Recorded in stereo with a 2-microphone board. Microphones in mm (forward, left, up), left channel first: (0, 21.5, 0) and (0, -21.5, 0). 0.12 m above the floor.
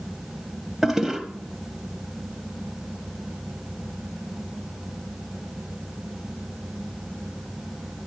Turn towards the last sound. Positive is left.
turn(degrees=-10)  # may be behind; listen again after turning